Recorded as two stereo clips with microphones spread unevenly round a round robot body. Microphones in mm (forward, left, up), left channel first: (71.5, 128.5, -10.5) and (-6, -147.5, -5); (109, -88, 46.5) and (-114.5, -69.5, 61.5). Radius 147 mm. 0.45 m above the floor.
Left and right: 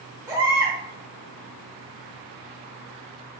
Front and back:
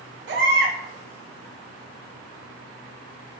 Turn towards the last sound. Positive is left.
turn(degrees=175)